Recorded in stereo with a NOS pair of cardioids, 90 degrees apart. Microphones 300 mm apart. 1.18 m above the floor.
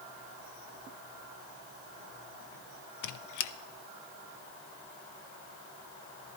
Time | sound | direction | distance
3.0 | a squeak | 70° left | 0.7 m